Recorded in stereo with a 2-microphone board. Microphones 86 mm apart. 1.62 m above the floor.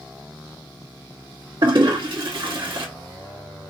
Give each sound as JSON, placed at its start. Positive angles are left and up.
{"t": 1.6, "sound": "a toilet flushing", "side_deg": -65, "distance_m": 1.5}